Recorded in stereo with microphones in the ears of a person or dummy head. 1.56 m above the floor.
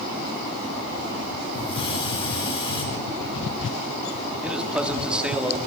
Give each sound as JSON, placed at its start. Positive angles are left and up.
{"t": 1.5, "sound": "a hiss", "side_deg": 35, "distance_m": 4.5}
{"t": 4.4, "sound": "a man speaking", "side_deg": -10, "distance_m": 1.5}